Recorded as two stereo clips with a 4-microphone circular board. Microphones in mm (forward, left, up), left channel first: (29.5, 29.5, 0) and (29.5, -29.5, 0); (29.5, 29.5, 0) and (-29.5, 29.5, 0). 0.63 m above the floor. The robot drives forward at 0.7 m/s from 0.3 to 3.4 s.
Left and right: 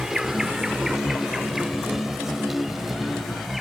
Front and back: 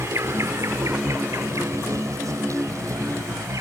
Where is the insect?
170° right; by 3.6 s 175° right.